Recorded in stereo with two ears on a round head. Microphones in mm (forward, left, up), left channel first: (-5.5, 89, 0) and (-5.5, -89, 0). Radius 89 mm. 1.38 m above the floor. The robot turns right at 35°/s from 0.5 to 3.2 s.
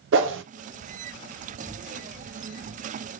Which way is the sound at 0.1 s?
65° right (ahead or behind).